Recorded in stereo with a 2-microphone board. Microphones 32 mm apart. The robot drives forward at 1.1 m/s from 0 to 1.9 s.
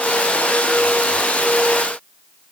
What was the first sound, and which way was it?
Only background noise.